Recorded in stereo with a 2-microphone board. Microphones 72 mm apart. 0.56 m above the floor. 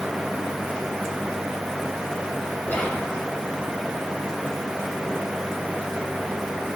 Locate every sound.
2.6 s whispering: 20° left (ahead or behind), 1.4 m